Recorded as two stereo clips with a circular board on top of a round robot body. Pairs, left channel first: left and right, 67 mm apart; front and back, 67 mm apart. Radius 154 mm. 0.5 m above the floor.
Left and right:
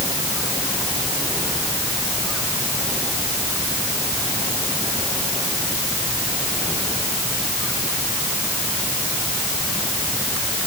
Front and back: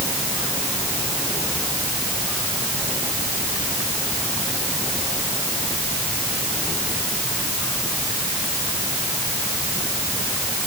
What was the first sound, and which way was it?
Only background noise.